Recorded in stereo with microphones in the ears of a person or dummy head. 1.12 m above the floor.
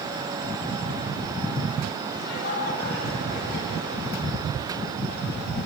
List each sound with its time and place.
2.1 s laughter: 55° left (ahead or behind), 9.5 m